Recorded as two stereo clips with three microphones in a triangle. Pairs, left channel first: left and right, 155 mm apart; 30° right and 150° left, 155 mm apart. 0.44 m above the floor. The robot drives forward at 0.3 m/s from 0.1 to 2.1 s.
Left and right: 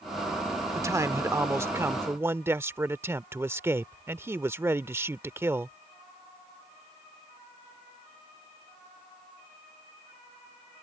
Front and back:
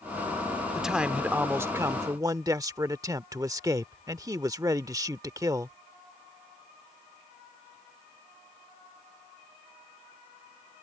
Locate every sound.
0.8 s a man speaking: 125° right; by 5.8 s 155° right